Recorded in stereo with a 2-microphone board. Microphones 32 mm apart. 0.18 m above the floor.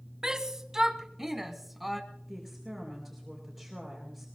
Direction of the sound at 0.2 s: 20° right (ahead or behind).